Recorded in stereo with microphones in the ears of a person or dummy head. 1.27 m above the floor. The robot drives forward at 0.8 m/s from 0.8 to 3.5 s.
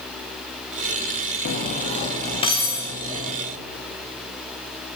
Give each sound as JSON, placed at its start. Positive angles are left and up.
{"t": 1.4, "sound": "cutlery clinking", "side_deg": 50, "distance_m": 1.0}